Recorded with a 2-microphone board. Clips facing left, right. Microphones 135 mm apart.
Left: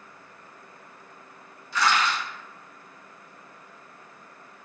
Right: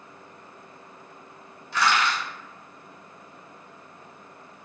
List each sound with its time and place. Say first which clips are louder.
1.7 s crushing: even; 60° right (ahead or behind), 1.5 m